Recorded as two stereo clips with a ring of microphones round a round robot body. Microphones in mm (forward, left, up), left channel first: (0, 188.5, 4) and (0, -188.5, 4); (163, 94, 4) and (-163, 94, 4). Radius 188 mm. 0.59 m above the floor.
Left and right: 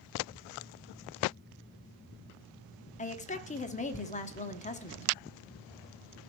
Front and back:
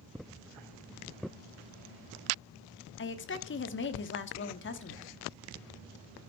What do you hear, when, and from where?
3.0 s a woman speaking: 30° left, 1.0 m